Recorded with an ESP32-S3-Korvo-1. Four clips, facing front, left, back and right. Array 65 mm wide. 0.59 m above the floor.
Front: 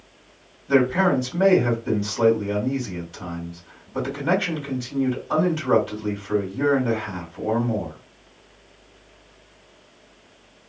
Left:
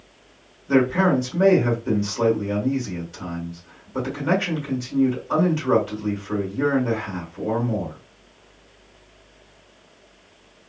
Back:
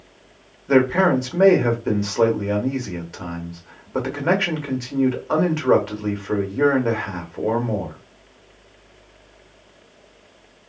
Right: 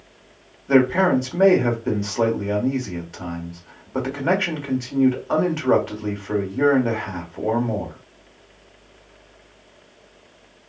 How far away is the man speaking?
About 1.4 m.